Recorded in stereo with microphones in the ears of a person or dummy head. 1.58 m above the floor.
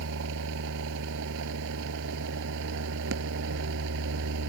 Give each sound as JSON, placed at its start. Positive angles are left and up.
{"t": 0.0, "sound": "a machine running", "side_deg": -70}